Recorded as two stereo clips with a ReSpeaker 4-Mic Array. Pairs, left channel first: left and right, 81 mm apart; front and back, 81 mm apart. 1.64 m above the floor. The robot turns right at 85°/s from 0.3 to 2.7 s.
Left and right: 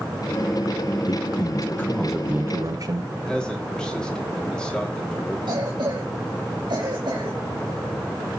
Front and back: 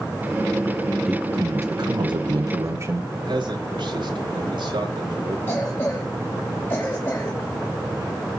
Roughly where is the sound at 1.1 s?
Left.